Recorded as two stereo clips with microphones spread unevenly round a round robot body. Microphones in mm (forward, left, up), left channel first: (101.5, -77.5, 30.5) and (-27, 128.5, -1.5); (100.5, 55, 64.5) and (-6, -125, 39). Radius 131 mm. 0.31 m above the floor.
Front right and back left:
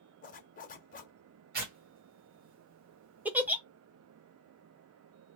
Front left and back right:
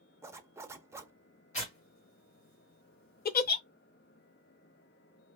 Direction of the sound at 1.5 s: 110° left.